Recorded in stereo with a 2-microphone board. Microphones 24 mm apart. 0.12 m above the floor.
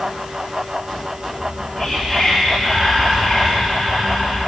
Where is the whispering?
5° right (ahead or behind), 2 m.